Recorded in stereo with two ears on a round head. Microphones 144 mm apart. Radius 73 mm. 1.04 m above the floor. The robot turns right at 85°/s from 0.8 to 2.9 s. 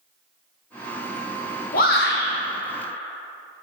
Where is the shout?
60° left, 0.7 m; by 2.3 s 110° left, 0.7 m.